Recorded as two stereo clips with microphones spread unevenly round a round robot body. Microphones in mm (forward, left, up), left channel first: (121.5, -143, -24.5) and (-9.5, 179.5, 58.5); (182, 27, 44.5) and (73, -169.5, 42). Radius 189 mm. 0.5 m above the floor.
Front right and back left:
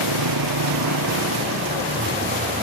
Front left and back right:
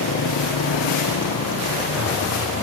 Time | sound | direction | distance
0.0 | a motorcycle | 80° left | ?